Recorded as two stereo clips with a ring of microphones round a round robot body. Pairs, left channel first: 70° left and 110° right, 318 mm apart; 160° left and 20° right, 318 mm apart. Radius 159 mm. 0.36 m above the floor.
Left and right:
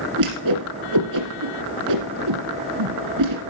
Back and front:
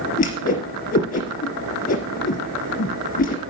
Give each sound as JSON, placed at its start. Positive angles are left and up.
{"t": 0.2, "sound": "a whoosh", "azimuth_deg": -140, "distance_m": 3.0}